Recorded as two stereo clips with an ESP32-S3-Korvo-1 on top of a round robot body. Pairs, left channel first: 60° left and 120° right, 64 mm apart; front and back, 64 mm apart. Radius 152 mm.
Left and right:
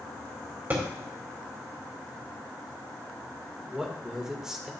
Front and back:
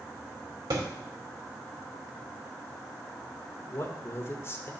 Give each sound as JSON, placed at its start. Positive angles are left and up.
{"t": 0.7, "sound": "a thud", "azimuth_deg": 180, "distance_m": 2.0}
{"t": 3.7, "sound": "a man speaking", "azimuth_deg": -40, "distance_m": 1.7}